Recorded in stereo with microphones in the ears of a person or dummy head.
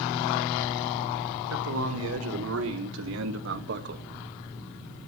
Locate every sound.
1.5 s a man speaking: 85° right, 4 m; by 4.0 s 55° right (ahead or behind), 1.1 m